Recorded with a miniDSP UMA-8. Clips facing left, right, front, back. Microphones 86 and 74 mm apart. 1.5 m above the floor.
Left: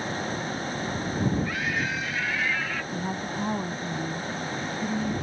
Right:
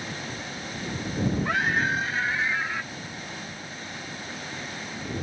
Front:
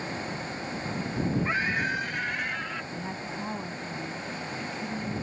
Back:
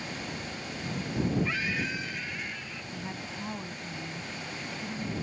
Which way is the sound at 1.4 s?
60° right.